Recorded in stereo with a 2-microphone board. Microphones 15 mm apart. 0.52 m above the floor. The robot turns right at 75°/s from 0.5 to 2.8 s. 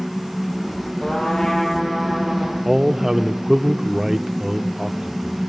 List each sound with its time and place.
1.0 s a trumpet: 100° left, 5.5 m; by 2.5 s 145° right, 5.5 m
2.6 s a man speaking: 25° right (ahead or behind), 0.9 m; by 5.4 s 30° right (ahead or behind), 0.9 m